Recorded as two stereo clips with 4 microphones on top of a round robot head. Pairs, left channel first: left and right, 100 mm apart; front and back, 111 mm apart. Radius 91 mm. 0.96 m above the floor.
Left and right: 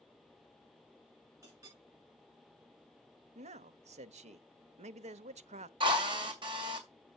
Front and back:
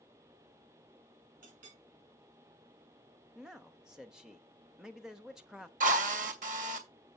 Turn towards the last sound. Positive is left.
turn(degrees=-145)